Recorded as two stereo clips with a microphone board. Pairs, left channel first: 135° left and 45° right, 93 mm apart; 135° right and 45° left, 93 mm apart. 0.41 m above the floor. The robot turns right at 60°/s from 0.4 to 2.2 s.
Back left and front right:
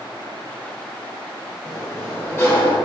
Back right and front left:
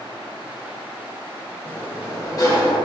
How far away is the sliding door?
About 0.7 m.